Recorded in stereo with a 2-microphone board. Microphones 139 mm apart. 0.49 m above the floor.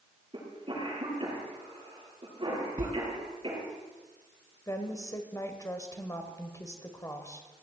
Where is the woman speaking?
20° left (ahead or behind), 1.8 m.